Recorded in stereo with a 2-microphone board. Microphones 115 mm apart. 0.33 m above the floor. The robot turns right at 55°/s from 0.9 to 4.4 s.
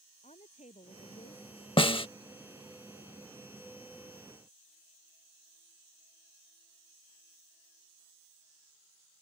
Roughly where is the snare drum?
Left.